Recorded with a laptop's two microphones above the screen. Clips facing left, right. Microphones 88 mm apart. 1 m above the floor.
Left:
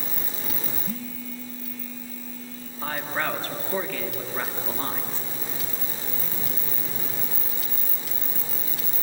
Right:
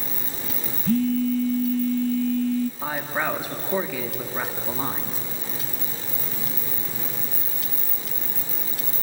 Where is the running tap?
I don't hear a running tap.